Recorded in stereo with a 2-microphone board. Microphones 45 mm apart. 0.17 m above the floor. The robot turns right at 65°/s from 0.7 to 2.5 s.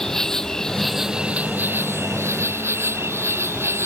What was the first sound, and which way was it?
An insect, 170° left.